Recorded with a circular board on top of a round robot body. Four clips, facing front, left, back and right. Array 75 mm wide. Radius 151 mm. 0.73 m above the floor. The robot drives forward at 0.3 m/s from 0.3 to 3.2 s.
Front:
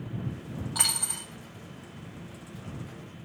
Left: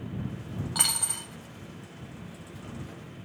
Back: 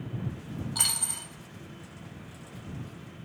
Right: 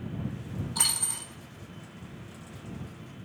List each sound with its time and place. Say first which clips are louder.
0.8 s a dropped coin: left 2 dB, front 2 dB; 70° left, 0.6 m; by 1.3 s 105° left, 0.6 m